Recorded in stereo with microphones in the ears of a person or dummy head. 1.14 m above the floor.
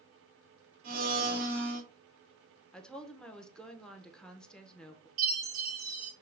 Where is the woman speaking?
Centre (ahead or behind), 0.6 m.